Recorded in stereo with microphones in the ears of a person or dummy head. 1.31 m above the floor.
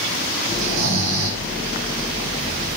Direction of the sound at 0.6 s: 70° right (ahead or behind).